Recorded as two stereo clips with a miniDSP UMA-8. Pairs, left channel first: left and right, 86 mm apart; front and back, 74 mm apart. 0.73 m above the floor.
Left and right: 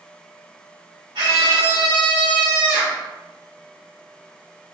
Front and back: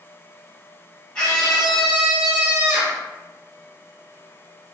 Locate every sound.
1.1 s a scream: 80° right, 1.6 m; by 3.0 s 130° right, 1.3 m